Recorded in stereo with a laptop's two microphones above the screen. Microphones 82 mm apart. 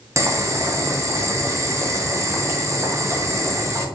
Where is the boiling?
35° right (ahead or behind), 0.5 m.